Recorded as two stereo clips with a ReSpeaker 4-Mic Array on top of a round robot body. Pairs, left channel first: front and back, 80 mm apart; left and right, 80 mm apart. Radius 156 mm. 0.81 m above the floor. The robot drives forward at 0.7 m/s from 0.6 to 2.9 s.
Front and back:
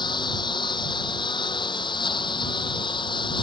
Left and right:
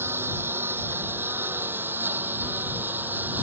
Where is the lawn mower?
25° right; by 3.4 s 20° right.